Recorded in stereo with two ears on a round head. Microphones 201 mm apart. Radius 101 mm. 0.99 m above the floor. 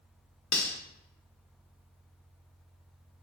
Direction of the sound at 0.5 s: 55° left (ahead or behind).